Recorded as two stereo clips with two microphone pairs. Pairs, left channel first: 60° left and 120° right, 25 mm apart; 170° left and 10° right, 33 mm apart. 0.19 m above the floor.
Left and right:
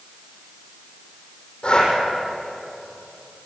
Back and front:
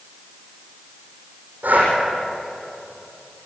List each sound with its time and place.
1.6 s breathing: 15° left, 7.5 m